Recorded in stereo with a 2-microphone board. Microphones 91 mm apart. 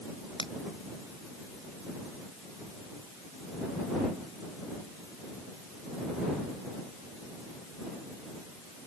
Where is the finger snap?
85° left.